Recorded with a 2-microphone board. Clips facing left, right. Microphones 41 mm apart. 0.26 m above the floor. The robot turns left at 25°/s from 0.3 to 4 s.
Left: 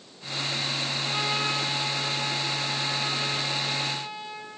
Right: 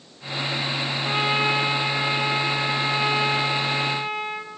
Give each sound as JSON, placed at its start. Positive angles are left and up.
{"t": 1.1, "sound": "a trumpet", "azimuth_deg": -35, "distance_m": 1.6}